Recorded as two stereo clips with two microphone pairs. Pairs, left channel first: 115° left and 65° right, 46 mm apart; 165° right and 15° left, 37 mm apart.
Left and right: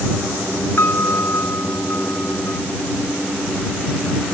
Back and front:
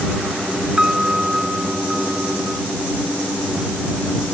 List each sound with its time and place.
0.8 s a piano: 85° left